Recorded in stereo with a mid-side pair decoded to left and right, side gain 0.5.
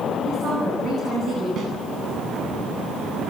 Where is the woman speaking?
45° right, 10 m.